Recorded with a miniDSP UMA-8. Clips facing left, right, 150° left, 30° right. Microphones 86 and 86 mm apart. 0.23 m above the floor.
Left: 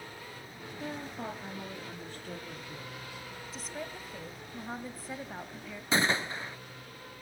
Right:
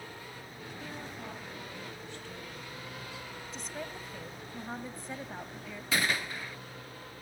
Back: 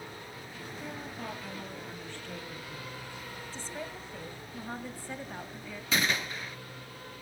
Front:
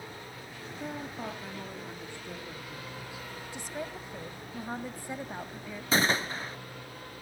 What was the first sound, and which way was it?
A woman speaking, 30° left.